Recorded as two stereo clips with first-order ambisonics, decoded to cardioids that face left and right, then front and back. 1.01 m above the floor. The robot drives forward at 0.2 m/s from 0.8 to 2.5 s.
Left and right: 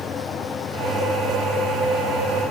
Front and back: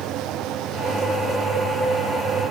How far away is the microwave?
I don't hear a microwave.